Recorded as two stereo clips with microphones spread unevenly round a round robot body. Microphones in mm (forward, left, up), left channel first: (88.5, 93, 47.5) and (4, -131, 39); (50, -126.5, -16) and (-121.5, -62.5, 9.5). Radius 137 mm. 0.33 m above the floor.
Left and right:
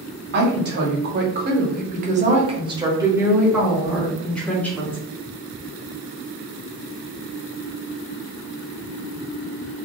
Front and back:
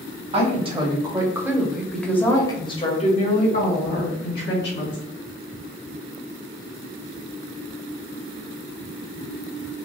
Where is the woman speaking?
145° right, 1.5 m; by 5.0 s 10° right, 2.0 m.